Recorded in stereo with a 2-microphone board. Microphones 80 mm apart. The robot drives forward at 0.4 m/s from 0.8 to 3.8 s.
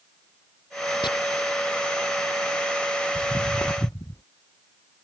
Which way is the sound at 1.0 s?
80° left.